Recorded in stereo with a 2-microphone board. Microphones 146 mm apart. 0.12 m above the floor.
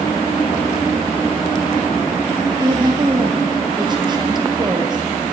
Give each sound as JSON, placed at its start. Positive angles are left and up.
{"t": 2.6, "sound": "a woman speaking", "side_deg": -30, "distance_m": 2.5}